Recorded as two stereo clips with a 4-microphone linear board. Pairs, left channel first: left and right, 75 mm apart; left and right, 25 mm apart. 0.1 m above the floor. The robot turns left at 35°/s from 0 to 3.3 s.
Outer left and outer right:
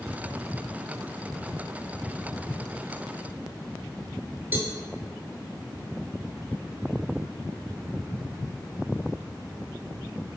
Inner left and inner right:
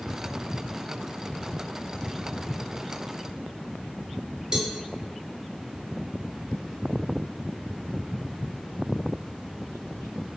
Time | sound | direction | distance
4.5 | a cowbell | 25° right (ahead or behind) | 0.6 m